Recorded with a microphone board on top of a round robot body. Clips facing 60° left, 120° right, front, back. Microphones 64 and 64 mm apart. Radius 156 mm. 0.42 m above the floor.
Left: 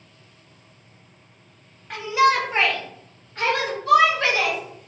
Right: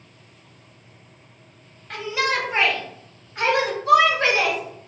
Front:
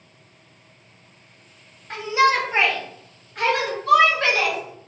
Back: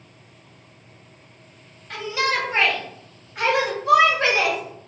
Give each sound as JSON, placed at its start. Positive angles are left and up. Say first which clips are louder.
{"t": 1.9, "sound": "a shout", "louder": "left 5 dB, front 5 dB", "azimuth_deg": -20, "distance_m": 1.6}